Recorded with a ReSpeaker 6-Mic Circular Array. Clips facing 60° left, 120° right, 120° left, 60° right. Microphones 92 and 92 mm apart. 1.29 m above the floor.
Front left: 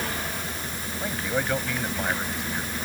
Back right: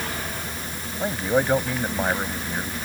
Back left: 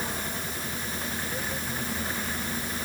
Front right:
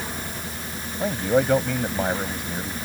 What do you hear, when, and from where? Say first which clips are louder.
1.0 s a man speaking: back right 6 dB, front right 17 dB; 55° right